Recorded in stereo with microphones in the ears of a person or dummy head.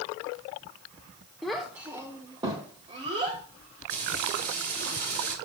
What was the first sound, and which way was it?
A child speaking, 5° left (ahead or behind).